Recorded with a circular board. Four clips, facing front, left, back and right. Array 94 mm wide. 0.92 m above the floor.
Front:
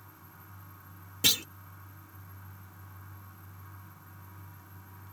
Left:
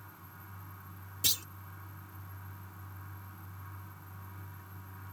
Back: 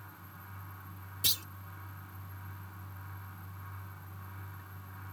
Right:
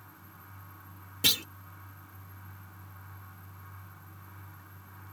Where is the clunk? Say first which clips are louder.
Right 10 dB, front 10 dB; 40° right.